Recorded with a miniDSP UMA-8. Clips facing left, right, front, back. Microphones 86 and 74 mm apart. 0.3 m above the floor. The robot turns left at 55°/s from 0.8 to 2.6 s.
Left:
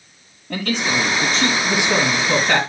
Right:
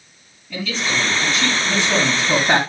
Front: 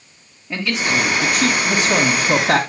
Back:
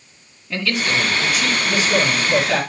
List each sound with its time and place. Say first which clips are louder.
0.5 s a man speaking: left 2 dB, front 1 dB; 65° left, 2.5 m; by 2.6 s 30° right, 2.5 m